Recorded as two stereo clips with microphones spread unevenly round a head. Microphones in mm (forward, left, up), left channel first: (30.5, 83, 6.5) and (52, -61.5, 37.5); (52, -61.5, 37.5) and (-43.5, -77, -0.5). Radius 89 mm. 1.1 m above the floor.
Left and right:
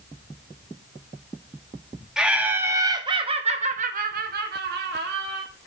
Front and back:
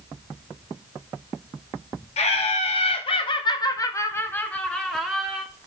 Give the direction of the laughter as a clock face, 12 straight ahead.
12 o'clock.